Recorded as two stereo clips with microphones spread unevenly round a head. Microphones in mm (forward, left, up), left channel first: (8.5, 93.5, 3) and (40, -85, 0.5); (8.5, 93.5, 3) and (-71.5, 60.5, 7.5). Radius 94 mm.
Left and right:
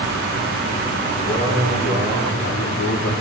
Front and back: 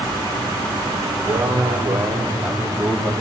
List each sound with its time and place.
1.2 s a man speaking: 140° left, 4.5 m; by 3.1 s 115° left, 3 m